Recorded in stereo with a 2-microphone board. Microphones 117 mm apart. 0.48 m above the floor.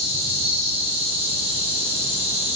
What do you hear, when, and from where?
0.0 s an insect: 60° right (ahead or behind), 1.0 m